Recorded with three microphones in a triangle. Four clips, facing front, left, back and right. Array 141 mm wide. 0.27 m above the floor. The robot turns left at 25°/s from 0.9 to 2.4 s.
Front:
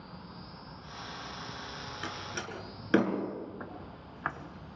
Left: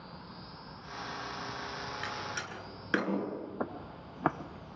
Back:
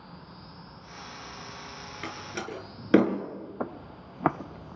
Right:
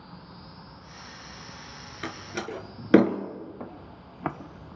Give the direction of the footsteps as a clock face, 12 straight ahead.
7 o'clock.